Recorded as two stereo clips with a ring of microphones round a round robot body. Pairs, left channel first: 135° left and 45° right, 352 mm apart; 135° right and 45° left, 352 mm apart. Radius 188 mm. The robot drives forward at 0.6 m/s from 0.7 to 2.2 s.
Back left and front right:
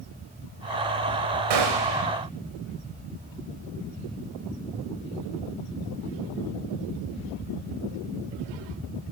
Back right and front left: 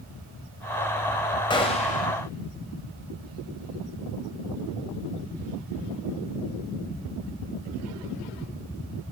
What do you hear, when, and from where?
1.5 s a gunshot: 60° right, 1.7 m; by 2.1 s 70° right, 1.6 m